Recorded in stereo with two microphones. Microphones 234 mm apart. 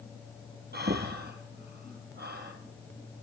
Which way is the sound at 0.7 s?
45° right (ahead or behind).